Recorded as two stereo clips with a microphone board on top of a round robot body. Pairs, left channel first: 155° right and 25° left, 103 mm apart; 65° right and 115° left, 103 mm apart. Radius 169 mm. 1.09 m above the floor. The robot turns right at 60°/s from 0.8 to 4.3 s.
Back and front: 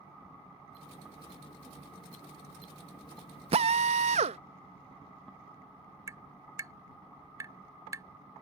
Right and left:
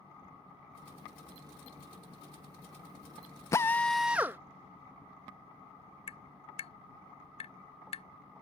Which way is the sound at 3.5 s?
5° right.